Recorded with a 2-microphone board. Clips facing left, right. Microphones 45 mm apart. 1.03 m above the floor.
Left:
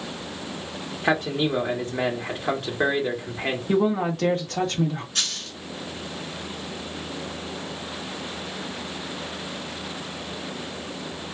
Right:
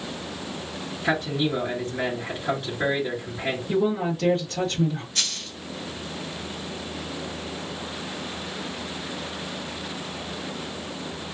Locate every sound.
1.0 s a man speaking: 55° left (ahead or behind), 1.4 m
3.7 s a woman speaking: 85° left, 1.5 m
5.2 s a dropped coin: 75° left (ahead or behind), 3 m